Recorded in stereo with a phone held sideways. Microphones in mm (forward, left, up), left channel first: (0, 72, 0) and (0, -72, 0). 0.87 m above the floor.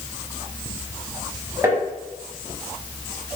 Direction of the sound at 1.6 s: 15° right (ahead or behind).